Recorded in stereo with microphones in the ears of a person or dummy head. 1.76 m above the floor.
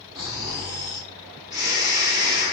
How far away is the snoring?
About 0.5 m.